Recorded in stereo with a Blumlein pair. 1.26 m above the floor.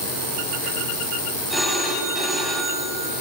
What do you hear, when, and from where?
1.5 s a phone ringing: straight ahead, 6.5 m